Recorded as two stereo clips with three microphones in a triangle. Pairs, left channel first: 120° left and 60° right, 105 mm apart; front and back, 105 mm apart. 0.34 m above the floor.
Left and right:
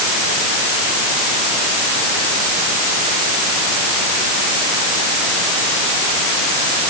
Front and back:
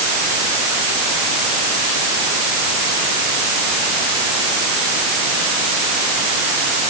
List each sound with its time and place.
Only background noise.